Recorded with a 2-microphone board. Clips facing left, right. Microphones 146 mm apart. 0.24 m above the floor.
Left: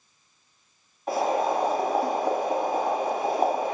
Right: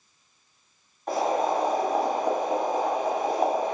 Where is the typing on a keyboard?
No typing on a keyboard in this recording.